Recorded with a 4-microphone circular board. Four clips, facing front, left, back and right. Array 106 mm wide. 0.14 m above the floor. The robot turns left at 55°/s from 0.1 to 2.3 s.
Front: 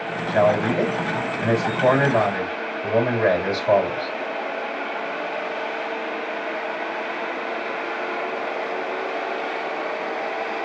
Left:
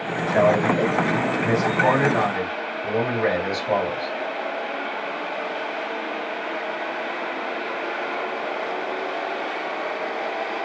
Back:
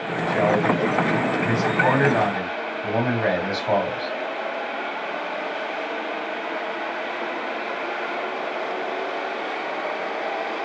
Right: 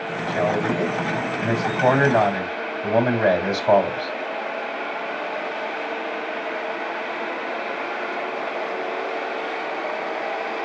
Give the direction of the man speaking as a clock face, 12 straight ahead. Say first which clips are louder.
Left 4 dB, front 1 dB; 11 o'clock.